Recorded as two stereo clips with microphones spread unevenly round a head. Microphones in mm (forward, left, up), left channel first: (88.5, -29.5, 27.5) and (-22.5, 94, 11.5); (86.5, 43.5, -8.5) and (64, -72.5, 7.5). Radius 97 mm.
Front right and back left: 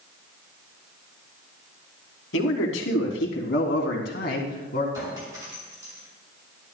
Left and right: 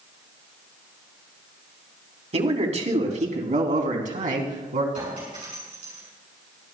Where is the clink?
155° right, 6 m.